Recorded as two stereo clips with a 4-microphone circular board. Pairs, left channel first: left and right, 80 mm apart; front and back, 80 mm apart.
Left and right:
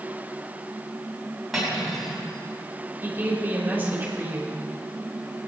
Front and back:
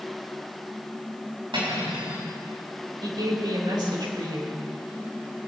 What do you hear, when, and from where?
1.5 s cutlery clinking: 175° right, 4.5 m
3.0 s a woman speaking: 155° right, 3 m